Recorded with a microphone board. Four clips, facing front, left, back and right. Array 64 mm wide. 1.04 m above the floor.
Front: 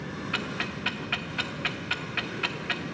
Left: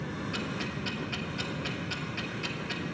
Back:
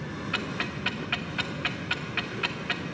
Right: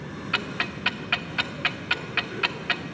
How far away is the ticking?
About 0.5 m.